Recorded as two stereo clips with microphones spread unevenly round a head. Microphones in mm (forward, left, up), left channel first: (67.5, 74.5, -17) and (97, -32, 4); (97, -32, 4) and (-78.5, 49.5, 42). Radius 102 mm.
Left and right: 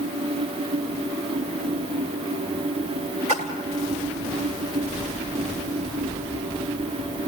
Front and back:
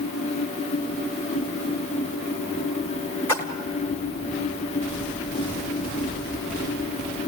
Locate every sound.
3.3 s a splash: 105° right, 2 m